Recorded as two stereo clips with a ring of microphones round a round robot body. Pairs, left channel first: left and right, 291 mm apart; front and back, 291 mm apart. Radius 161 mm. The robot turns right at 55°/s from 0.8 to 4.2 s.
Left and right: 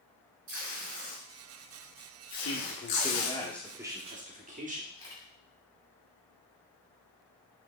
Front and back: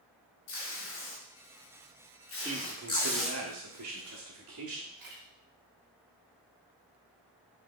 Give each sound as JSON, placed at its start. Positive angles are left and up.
{"t": 0.5, "sound": "tape being pulled", "azimuth_deg": -45, "distance_m": 2.5}
{"t": 2.4, "sound": "a man speaking", "azimuth_deg": 110, "distance_m": 1.3}
{"t": 4.9, "sound": "a camera shutter", "azimuth_deg": 165, "distance_m": 3.5}